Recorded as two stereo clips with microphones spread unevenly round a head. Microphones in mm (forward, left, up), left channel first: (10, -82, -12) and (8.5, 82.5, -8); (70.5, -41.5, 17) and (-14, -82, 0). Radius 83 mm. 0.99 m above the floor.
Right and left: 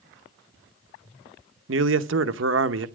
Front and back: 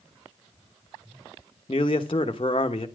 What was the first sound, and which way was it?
A man speaking, 85° left.